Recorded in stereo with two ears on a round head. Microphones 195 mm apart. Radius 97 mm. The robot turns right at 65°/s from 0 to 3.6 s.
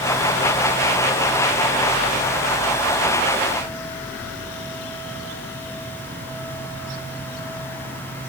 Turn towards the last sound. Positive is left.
No sound to turn to.